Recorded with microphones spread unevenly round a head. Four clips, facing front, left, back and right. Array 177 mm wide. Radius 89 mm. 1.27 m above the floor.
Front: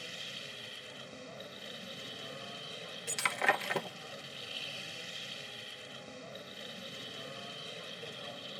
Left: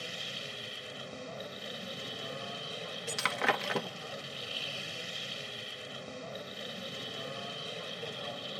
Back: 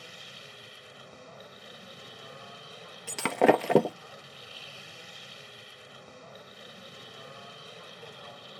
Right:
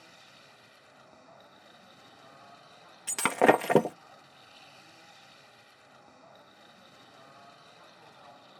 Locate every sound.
0.0 s a machine running: 95° left
3.1 s breaking glass: 135° right